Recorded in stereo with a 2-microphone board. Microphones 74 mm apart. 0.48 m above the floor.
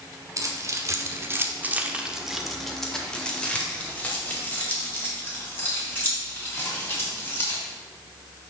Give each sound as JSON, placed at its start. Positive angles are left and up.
{"t": 0.4, "sound": "keys jangling", "side_deg": -45, "distance_m": 1.1}